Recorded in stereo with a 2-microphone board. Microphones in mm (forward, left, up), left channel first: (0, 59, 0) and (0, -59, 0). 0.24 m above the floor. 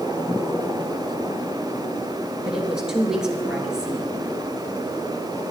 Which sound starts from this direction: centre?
A woman speaking, at 2.4 s.